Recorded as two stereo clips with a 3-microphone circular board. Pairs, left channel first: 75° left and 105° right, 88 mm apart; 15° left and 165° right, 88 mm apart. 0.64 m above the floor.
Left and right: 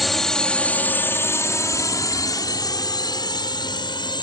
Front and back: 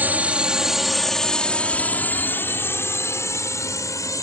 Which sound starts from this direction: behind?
A drone, at 0.0 s.